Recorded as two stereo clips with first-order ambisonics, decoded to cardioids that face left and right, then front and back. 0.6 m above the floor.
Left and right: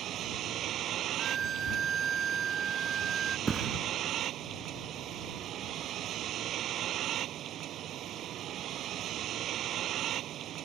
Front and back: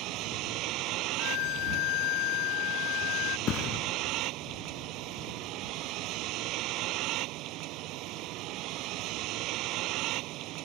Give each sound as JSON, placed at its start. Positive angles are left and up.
{"t": 0.0, "sound": "a vehicle", "azimuth_deg": -145}
{"t": 1.2, "sound": "a violin", "azimuth_deg": -25}
{"t": 3.5, "sound": "a thud", "azimuth_deg": -25}